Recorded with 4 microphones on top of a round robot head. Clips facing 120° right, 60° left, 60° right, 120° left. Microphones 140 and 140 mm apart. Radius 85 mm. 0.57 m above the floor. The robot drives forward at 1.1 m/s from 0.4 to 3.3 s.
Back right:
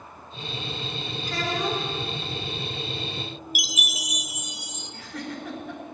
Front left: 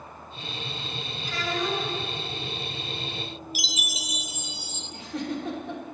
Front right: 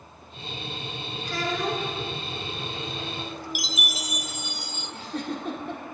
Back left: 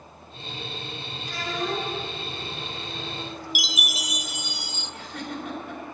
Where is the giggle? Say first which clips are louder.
Front left 5 dB, front right 4 dB; 5° right, 2.5 m.